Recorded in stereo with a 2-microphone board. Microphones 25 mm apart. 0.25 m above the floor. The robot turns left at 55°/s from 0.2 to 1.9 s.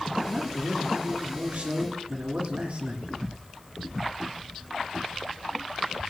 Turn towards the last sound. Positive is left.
turn(degrees=-105)